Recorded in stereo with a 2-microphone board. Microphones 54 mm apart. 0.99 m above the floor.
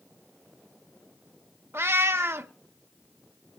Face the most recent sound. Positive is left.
turn(degrees=-50)  # may be behind; listen again after turning